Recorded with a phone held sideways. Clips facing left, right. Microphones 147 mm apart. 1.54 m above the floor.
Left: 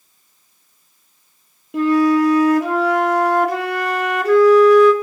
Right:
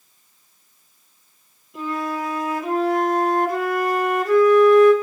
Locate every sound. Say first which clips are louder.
1.7 s a flute: left 13 dB; 80° left, 2.5 m